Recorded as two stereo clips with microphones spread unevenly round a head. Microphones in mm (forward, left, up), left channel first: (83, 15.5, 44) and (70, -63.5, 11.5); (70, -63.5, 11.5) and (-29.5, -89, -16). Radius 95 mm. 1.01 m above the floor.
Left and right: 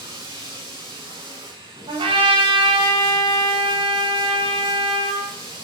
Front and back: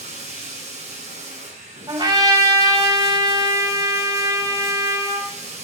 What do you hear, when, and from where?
0.0 s running water: 165° right, 9 m
1.9 s a trumpet: 120° right, 6 m